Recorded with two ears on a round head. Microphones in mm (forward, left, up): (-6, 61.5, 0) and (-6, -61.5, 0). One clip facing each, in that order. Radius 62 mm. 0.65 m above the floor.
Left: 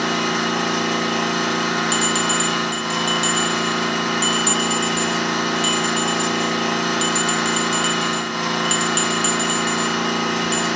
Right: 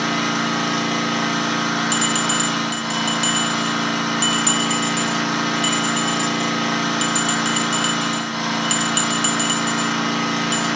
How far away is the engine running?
About 1.1 m.